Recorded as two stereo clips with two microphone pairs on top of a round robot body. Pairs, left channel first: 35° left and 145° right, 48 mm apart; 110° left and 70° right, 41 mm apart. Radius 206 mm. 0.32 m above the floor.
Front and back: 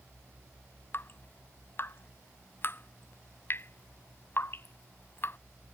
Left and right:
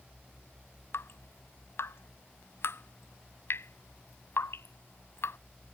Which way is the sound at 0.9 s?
80° left.